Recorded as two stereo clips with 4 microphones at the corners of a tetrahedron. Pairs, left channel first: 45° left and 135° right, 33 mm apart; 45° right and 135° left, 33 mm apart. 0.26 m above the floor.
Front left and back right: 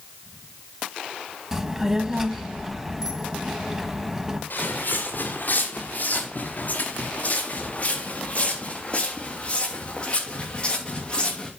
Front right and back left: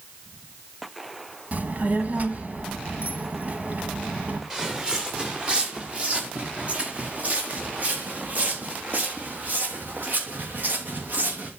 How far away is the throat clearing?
No throat clearing in this recording.